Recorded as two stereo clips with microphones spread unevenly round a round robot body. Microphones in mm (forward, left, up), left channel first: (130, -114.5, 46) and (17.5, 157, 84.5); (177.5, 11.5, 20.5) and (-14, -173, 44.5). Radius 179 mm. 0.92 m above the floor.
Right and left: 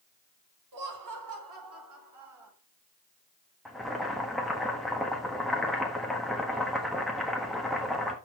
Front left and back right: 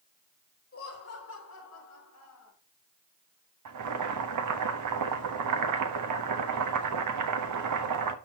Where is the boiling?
155° right, 1.3 m.